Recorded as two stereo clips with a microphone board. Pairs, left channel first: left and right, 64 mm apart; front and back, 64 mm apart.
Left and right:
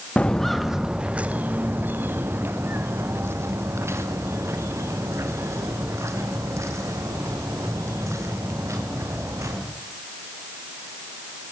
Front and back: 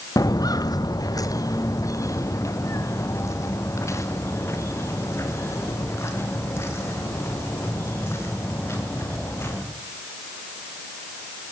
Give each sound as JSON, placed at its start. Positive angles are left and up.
{"t": 0.2, "sound": "footsteps", "azimuth_deg": 20, "distance_m": 0.8}